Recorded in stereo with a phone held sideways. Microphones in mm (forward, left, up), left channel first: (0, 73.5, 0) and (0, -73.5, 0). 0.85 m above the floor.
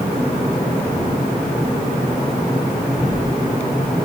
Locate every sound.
Only background noise.